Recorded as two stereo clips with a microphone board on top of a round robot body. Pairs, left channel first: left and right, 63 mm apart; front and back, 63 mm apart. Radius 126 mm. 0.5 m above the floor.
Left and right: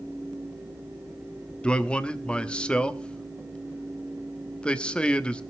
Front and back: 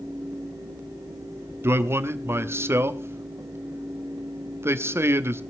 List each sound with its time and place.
1.6 s a man speaking: 160° left, 1.0 m